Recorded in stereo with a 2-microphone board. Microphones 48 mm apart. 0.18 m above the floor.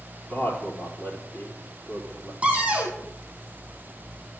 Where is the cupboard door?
20° right (ahead or behind), 2 m.